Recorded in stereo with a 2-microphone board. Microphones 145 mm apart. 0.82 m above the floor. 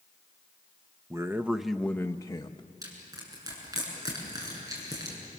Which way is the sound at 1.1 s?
20° right (ahead or behind).